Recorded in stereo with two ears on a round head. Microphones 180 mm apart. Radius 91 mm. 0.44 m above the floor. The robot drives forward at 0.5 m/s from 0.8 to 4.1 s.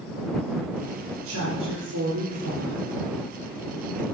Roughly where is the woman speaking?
Right.